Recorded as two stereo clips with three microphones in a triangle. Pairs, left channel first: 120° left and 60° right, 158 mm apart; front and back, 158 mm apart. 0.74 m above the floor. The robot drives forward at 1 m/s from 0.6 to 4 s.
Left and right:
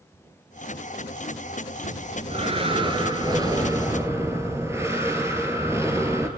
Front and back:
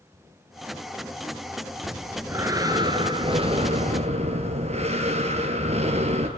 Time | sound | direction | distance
1.8 | breathing | 100° right | 3 m